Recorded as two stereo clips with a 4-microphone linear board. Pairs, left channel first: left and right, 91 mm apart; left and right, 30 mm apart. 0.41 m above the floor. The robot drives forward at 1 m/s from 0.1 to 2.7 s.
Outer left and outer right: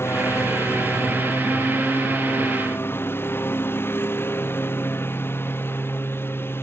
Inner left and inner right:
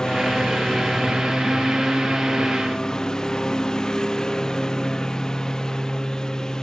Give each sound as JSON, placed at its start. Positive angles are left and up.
{"t": 0.0, "sound": "a lawn mower", "side_deg": 25}